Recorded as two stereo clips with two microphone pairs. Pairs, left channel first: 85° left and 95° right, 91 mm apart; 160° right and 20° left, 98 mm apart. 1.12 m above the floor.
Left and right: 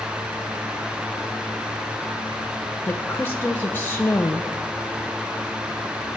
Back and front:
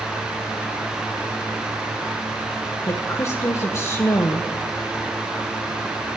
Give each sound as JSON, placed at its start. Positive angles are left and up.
{"t": 2.9, "sound": "a woman speaking", "azimuth_deg": 145, "distance_m": 0.7}